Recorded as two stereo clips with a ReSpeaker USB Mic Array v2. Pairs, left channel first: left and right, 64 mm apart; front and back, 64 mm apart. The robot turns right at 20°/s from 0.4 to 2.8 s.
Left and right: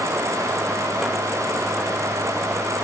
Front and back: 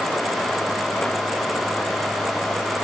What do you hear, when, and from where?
Only background noise.